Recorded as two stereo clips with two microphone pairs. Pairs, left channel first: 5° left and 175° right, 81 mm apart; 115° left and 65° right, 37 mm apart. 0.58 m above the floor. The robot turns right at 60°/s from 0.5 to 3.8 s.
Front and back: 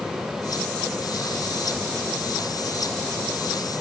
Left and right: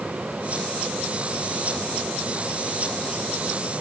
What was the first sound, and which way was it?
Only background noise.